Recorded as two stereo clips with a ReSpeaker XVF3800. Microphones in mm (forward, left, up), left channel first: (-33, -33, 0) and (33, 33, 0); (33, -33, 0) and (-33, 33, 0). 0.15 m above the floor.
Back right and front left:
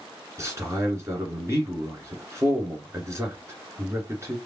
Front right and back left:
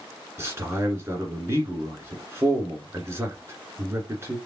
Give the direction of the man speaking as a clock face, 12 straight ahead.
9 o'clock.